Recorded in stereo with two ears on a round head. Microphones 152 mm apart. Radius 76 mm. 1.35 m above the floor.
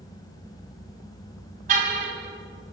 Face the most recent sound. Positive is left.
turn(degrees=-45)  # may be behind; listen again after turning